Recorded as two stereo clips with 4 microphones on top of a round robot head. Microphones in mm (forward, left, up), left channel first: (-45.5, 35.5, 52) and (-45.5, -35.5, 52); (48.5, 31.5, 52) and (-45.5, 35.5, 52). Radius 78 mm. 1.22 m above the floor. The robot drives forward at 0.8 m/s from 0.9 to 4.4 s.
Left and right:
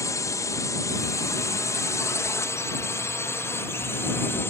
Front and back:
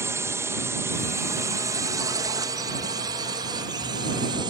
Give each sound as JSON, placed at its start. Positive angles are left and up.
{"t": 0.0, "sound": "a drone", "azimuth_deg": 120}